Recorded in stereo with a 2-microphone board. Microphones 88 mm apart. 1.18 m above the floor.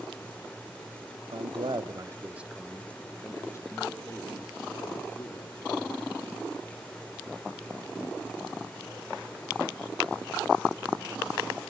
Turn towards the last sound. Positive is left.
turn(degrees=50)  # may be behind; listen again after turning